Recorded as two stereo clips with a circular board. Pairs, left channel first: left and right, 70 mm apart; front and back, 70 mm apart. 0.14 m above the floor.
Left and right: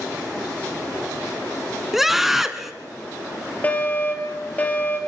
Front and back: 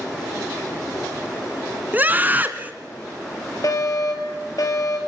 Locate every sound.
1.9 s a scream: 170° right, 1.4 m
3.6 s a fire alarm: 25° left, 4.5 m